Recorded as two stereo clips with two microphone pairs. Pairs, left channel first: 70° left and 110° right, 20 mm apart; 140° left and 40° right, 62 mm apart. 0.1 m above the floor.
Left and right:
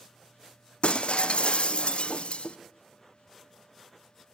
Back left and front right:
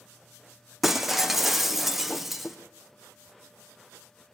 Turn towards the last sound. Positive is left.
turn(degrees=40)